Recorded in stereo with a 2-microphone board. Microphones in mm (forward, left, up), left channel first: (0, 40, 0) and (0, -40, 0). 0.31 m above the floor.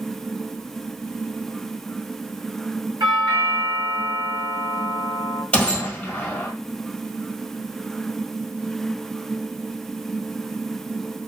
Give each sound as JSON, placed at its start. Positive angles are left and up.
{"t": 3.0, "sound": "a doorbell", "side_deg": -65, "distance_m": 4.0}
{"t": 5.5, "sound": "a gunshot", "side_deg": 15, "distance_m": 1.5}